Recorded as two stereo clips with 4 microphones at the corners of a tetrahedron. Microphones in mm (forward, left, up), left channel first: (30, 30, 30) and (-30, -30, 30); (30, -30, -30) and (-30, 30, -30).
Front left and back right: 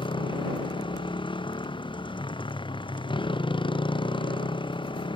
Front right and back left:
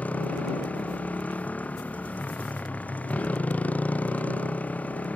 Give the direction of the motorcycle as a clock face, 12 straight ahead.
11 o'clock.